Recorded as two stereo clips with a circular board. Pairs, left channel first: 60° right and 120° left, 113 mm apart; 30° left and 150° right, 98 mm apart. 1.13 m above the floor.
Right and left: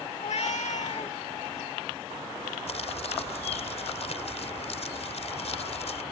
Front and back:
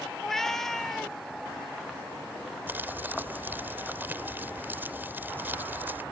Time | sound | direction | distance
0.2 | a cat meowing | 55° right | ?
2.7 | crumpling | 80° right | ?